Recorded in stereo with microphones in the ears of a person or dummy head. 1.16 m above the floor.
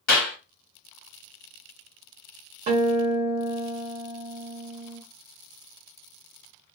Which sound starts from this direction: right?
A guitar, at 2.7 s.